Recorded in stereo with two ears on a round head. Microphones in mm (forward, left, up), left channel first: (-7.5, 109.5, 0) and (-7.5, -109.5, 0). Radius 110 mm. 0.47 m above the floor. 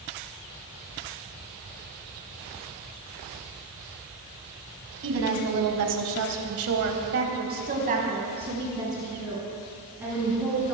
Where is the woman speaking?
55° right (ahead or behind), 3.5 m; by 10.7 s 5° right (ahead or behind), 6.5 m.